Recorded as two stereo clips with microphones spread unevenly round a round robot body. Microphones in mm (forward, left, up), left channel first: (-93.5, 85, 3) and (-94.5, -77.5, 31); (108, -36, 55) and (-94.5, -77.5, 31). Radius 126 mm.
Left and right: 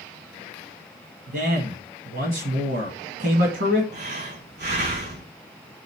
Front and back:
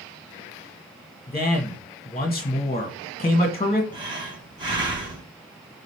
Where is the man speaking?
50° right, 1.6 m.